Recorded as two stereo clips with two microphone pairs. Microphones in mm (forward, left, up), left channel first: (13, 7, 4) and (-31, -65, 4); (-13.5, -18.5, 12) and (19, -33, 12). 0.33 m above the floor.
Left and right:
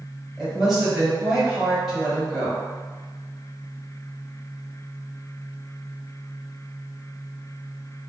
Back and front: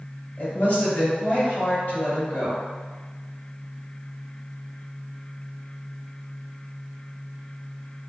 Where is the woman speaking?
150° left, 1.8 m.